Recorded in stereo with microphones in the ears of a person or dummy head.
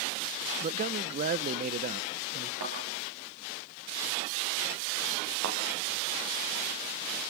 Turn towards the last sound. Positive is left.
turn(degrees=-65)  # may be behind; listen again after turning